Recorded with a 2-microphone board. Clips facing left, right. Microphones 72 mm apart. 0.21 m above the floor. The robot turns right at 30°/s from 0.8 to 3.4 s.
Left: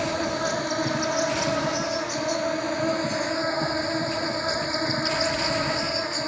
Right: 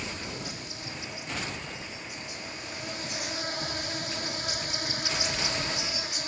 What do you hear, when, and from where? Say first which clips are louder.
0.0 s an insect: left 12 dB; 65° left; by 6.3 s 145° left